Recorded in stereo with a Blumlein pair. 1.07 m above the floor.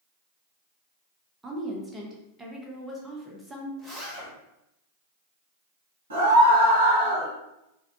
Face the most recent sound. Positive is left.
turn(degrees=-70)